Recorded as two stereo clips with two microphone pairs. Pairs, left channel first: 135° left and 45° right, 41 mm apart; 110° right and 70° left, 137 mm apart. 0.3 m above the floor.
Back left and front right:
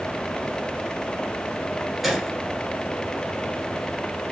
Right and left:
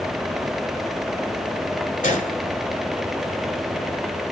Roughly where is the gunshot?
Behind right.